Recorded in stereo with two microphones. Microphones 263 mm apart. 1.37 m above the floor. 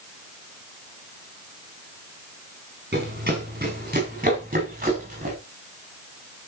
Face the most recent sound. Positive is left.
turn(degrees=-30)  # may be behind; listen again after turning